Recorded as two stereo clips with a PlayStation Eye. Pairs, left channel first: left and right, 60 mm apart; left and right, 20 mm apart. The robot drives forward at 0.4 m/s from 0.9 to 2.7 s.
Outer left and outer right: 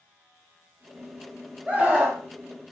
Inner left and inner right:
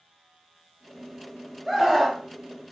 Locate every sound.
1.7 s a scream: 20° right (ahead or behind), 1.9 m